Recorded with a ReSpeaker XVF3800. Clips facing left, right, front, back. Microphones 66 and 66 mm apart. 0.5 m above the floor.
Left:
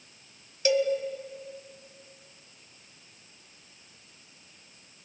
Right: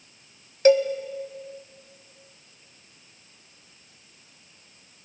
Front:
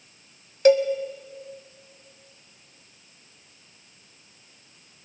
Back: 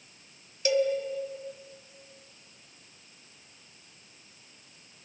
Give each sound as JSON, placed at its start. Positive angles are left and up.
{"t": 0.7, "sound": "a cowbell", "azimuth_deg": -40, "distance_m": 1.3}